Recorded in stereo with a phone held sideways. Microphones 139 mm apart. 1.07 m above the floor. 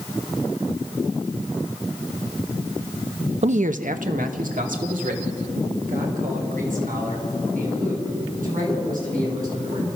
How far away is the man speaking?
About 0.5 m.